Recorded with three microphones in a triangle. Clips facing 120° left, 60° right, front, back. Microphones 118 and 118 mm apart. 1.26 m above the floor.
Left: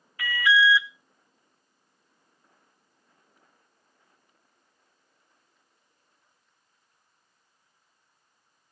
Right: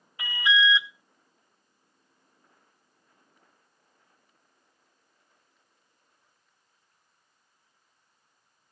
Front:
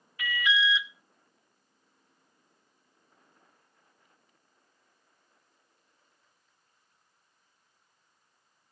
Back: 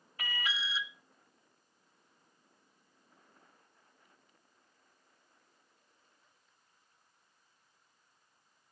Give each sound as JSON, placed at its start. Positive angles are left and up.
{"t": 0.2, "sound": "an alarm", "azimuth_deg": -130, "distance_m": 0.7}